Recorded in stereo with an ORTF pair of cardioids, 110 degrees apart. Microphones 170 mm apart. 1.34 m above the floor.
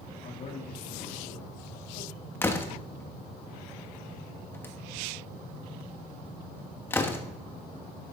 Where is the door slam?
15° left, 1.4 m.